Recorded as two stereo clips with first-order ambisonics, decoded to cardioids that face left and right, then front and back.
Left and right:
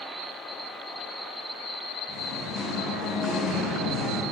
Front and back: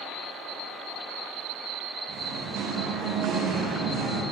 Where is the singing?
125° left, 6 m.